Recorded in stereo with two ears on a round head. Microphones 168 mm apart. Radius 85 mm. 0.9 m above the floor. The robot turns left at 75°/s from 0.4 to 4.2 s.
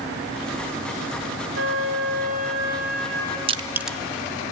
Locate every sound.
1.6 s a flute: 70° right, 3 m; by 3.4 s 150° left, 3 m
3.5 s crushing: 30° right (ahead or behind), 0.7 m; by 4.0 s 5° left (ahead or behind), 0.7 m